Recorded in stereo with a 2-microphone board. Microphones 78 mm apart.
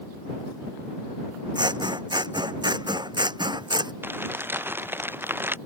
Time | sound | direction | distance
1.6 | scissors | 70° right (ahead or behind) | ?
4.0 | crumpling | 30° right (ahead or behind) | ?